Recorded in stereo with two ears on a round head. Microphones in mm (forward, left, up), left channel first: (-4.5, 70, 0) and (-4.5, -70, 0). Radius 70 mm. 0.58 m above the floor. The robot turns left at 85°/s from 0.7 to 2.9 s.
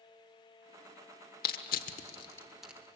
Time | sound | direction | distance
1.4 | crushing | 65° left (ahead or behind) | 1.2 m